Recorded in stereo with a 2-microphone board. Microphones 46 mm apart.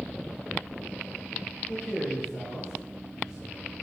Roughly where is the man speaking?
Centre.